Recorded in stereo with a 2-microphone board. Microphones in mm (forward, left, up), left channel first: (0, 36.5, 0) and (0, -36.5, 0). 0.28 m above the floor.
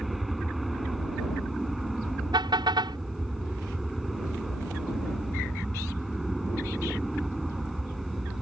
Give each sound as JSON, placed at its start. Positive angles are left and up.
{"t": 0.0, "sound": "an aircraft", "side_deg": 0}
{"t": 2.3, "sound": "a car horn", "side_deg": -75}